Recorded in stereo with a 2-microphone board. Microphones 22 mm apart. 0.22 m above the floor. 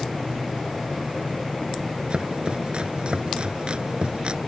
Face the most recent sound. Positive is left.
turn(degrees=-50)  # may be behind; listen again after turning